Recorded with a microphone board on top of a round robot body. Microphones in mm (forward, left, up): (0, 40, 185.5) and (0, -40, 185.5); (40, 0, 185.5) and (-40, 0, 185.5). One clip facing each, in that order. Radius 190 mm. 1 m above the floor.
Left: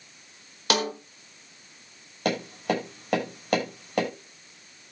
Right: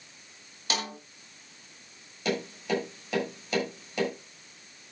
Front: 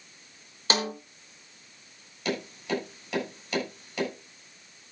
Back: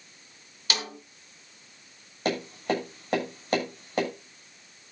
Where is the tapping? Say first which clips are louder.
Left 3 dB, back 3 dB; 130° left, 7.5 m.